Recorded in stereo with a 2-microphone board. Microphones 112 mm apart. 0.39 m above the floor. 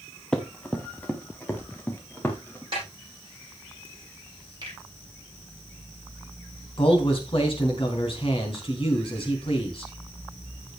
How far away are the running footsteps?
About 1.8 m.